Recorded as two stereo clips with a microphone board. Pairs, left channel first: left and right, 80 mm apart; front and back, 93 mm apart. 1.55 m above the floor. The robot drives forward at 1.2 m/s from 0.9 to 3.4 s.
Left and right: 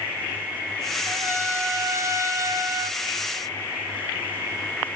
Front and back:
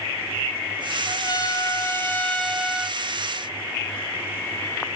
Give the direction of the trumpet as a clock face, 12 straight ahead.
1 o'clock.